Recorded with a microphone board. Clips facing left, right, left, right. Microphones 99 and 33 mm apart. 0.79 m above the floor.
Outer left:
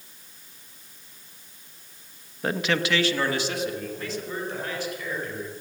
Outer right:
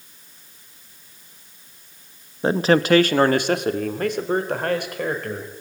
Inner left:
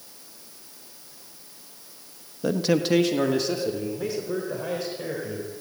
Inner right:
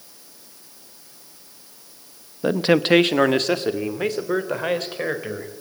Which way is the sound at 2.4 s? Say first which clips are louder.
Outer right 8 dB, inner right 5 dB; 25° right (ahead or behind).